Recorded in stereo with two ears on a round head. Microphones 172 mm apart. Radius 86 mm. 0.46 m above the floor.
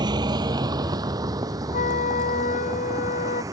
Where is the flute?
45° left (ahead or behind).